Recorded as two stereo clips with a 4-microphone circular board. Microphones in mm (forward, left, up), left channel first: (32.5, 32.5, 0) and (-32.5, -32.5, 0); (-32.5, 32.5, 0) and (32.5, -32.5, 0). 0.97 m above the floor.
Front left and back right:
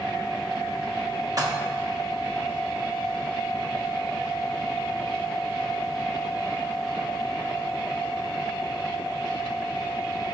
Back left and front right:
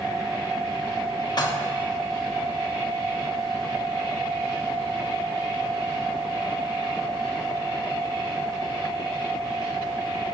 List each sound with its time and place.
1.4 s dishes clattering: 175° left, 1.1 m